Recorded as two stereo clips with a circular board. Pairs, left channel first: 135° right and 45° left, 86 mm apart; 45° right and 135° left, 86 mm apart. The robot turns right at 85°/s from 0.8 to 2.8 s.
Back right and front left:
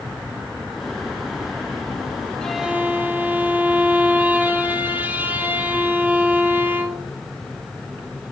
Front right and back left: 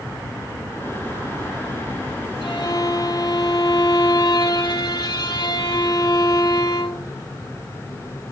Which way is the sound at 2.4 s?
55° right.